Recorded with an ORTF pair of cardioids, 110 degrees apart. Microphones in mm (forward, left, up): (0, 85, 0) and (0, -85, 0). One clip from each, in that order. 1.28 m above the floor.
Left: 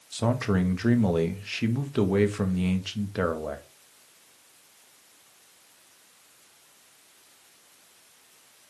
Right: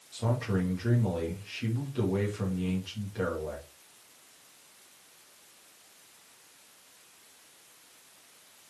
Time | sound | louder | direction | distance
0.1 | a man speaking | left 5 dB | 60° left | 1.8 m